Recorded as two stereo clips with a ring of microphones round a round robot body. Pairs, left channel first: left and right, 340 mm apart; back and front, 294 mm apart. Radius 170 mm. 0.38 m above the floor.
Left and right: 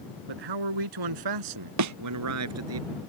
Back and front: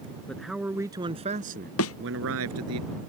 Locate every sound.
0.3 s a man speaking: 95° right; by 2.8 s 45° right
1.8 s a thud: 130° right